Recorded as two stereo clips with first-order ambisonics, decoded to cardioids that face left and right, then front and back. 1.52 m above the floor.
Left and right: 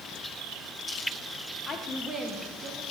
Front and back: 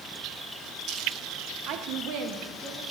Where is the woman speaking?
150° left, 0.8 m; by 2.8 s 125° right, 1.4 m.